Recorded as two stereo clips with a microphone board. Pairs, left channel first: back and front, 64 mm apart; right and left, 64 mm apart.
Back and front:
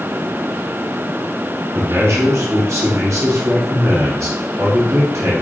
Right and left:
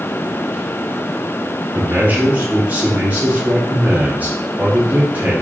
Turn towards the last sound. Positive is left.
turn(degrees=35)